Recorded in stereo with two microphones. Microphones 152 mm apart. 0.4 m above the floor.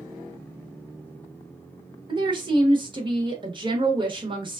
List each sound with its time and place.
2.1 s a woman speaking: 30° right (ahead or behind), 0.9 m